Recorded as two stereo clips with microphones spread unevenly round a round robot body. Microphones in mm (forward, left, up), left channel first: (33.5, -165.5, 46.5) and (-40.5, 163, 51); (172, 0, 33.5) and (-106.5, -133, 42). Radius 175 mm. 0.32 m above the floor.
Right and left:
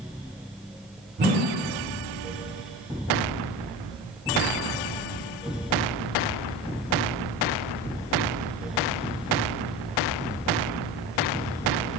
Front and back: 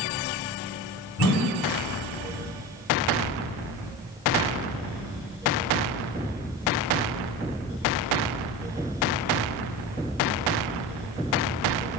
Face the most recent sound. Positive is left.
turn(degrees=35)